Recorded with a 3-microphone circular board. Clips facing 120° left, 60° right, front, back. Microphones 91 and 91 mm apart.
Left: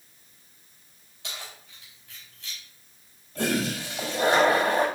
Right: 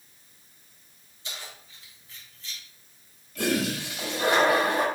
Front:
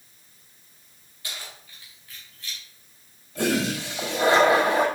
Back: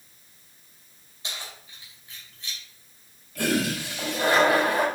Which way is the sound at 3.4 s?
65° left.